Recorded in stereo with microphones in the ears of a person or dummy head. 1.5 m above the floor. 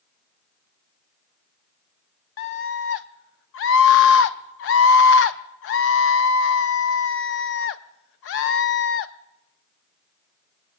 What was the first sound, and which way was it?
A scream, 65° left (ahead or behind).